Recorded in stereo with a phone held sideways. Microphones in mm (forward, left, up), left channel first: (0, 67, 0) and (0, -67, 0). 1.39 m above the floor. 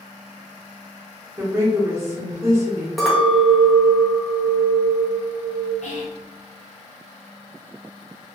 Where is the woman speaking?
20° right (ahead or behind), 0.9 m.